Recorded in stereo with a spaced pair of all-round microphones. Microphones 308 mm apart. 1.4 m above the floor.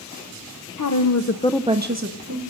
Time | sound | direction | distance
0.8 | a woman speaking | 75° left (ahead or behind) | 1.2 m